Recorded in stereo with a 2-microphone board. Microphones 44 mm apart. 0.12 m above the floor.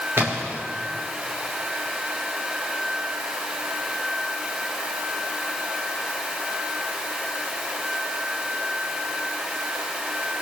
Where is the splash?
60° right (ahead or behind), 3 m.